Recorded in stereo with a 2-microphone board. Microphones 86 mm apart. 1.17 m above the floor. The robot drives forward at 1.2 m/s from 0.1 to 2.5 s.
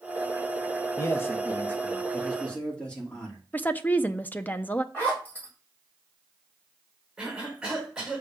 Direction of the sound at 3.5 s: 20° left (ahead or behind).